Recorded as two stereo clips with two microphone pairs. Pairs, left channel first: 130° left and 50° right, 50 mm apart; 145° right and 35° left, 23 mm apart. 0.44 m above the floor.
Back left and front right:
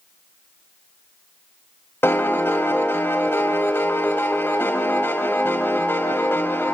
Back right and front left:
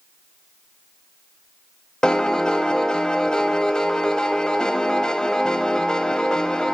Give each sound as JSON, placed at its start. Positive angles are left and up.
{"t": 2.0, "sound": "a piano", "azimuth_deg": 170, "distance_m": 0.9}